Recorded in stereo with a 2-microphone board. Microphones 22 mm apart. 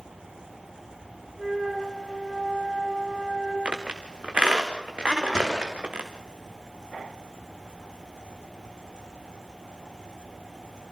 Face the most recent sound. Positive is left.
turn(degrees=35)  # may be behind; listen again after turning